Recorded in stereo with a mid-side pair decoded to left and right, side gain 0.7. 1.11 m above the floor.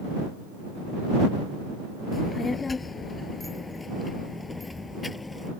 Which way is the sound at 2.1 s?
20° left.